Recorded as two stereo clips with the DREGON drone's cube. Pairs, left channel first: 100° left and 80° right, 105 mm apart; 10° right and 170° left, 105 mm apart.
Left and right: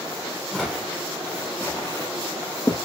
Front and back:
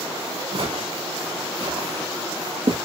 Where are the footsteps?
170° right, 2.5 m; by 2.8 s 150° left, 2.5 m.